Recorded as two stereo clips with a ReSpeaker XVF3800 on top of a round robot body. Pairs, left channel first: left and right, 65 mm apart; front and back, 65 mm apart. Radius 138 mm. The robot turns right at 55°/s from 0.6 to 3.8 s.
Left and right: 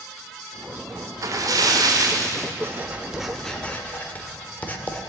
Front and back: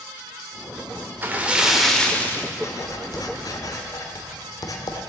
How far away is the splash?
About 1.9 m.